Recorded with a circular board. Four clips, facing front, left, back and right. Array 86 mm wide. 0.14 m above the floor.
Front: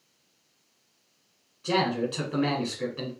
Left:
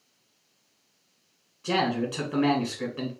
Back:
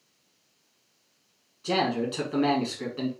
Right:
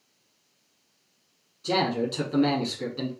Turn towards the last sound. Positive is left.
turn(degrees=85)